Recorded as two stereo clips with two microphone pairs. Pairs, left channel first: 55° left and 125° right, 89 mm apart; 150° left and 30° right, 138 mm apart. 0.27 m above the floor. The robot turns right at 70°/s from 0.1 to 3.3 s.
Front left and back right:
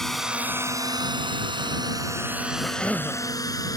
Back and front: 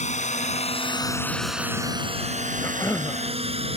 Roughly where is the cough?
Left.